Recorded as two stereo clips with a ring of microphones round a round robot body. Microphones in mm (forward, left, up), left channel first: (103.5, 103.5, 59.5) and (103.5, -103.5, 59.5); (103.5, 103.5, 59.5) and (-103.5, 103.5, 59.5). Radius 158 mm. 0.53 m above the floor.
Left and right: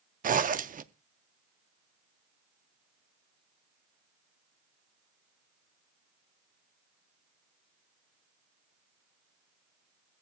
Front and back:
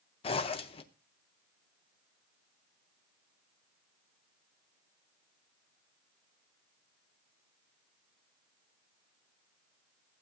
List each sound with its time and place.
0.2 s a zipper: 55° right, 0.5 m